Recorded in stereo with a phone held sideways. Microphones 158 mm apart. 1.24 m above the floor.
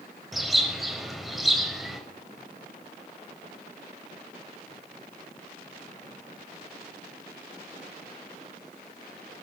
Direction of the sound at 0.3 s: Centre (ahead or behind).